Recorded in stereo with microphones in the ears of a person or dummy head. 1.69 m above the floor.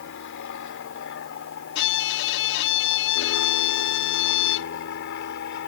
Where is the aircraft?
70° left (ahead or behind); by 5.7 s 65° left (ahead or behind).